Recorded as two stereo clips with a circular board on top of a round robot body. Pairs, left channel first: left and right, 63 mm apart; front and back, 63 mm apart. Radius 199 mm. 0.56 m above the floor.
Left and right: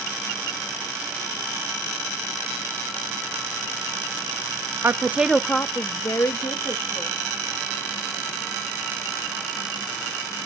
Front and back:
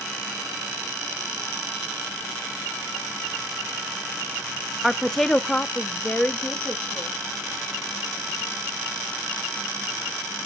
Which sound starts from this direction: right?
A woman speaking, at 4.8 s.